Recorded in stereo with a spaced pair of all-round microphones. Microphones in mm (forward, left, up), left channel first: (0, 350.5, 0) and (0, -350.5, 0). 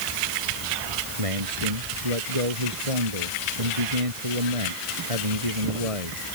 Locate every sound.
1.2 s a man speaking: 50° right (ahead or behind)